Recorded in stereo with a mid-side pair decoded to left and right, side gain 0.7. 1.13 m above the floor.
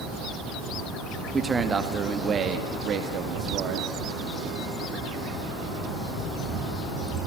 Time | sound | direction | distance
1.3 | a man speaking | 20° right | 2.0 m